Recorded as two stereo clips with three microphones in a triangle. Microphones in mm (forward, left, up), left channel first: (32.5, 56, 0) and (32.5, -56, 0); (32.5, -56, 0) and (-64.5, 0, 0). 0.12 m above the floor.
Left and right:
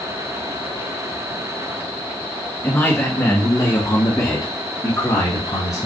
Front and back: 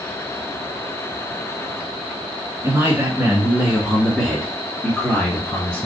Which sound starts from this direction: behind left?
A man speaking, at 2.6 s.